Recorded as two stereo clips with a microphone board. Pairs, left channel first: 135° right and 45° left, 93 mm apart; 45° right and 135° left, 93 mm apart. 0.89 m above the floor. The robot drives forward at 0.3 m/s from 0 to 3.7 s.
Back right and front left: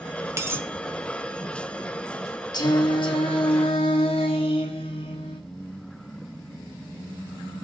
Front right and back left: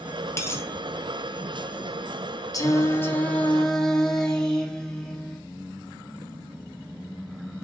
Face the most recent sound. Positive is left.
turn(degrees=-130)